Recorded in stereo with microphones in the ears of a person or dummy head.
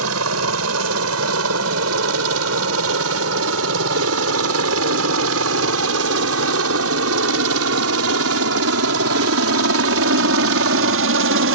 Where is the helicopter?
75° right (ahead or behind); by 11.6 s 60° right (ahead or behind).